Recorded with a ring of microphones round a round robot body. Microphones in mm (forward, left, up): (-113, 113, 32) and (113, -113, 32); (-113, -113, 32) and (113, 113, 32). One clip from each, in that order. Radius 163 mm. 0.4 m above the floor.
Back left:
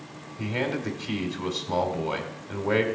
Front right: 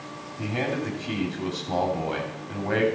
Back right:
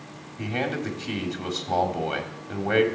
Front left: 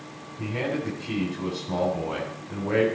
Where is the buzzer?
I don't hear a buzzer.